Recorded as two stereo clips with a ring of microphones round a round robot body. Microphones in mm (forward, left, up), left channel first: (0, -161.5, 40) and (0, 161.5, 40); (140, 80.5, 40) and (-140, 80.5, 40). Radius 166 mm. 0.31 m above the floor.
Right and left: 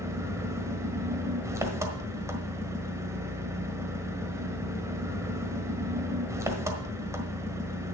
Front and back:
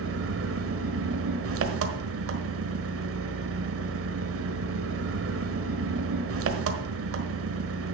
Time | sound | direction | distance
0.0 | an engine running | 170° left | 1.4 m